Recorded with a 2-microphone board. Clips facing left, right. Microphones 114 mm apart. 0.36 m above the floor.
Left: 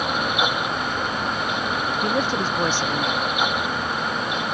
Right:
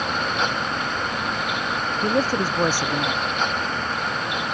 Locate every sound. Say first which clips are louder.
2.0 s a man speaking: right 3 dB; 10° right (ahead or behind)